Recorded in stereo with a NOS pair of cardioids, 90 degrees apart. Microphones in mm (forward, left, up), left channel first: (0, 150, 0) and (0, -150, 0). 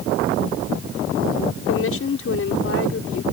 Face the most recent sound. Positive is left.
turn(degrees=45)